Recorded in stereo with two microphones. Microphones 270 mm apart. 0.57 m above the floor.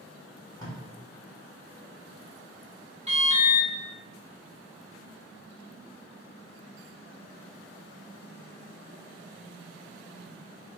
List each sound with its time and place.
0.6 s tape being pulled: 15° left (ahead or behind), 1.7 m
3.1 s an alarm: 25° right (ahead or behind), 1.3 m